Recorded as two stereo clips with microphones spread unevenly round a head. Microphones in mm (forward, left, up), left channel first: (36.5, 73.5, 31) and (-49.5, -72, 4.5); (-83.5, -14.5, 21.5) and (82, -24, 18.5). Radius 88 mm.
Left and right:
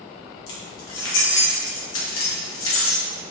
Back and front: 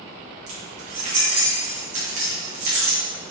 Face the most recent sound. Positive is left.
turn(degrees=50)